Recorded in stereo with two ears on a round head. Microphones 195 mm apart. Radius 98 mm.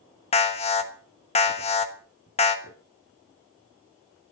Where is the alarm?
25° left (ahead or behind), 1.4 m.